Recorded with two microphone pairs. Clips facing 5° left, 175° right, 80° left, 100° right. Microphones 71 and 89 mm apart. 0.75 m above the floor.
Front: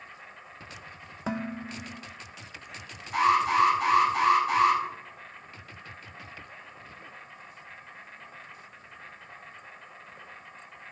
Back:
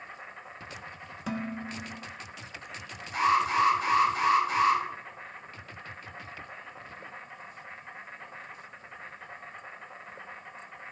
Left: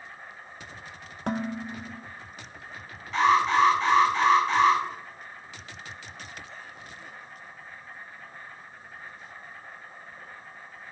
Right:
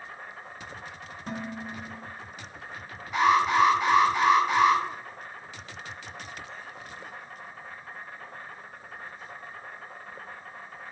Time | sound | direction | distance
0.0 | an insect | 105° right | 1.9 m
1.3 | dishes clattering | 65° left | 1.0 m
3.1 | an alarm | 20° right | 6 m